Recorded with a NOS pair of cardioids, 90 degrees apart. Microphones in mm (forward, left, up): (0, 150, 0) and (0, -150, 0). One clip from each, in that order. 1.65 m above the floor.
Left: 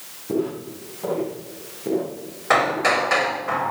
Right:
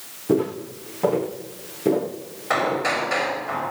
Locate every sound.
0.3 s footsteps: 60° right, 6 m
2.5 s hammering: 35° left, 5 m